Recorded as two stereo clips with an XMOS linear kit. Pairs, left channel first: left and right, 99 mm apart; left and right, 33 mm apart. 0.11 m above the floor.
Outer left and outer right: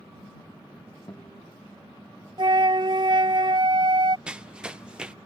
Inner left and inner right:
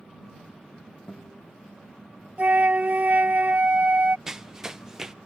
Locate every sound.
1.1 s a guitar: 35° left (ahead or behind)
2.4 s a flute: 55° right (ahead or behind)
4.3 s running footsteps: 10° right (ahead or behind)